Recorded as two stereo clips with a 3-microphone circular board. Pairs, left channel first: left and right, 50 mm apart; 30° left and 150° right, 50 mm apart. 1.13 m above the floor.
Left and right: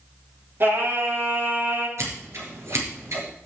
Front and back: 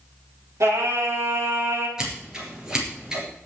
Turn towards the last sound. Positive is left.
turn(degrees=-75)